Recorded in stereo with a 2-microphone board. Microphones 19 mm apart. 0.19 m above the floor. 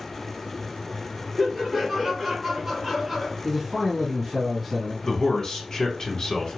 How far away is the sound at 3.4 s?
About 1.9 m.